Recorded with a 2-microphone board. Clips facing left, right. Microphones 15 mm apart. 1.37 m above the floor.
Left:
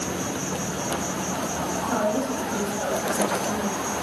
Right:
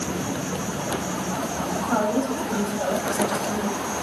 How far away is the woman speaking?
About 1.7 m.